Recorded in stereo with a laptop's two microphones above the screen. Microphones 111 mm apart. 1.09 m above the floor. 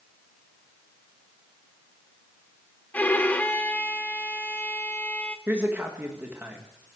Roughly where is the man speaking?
Centre.